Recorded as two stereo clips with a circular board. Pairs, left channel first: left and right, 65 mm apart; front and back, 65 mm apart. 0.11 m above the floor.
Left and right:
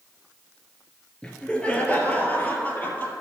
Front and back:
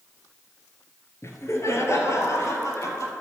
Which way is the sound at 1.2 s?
15° left.